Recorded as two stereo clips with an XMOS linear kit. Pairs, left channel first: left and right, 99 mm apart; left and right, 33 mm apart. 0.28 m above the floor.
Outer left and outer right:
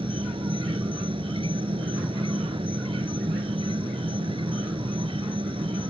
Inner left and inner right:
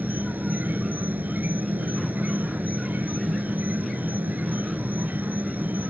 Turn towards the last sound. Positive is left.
turn(degrees=-65)  # may be behind; listen again after turning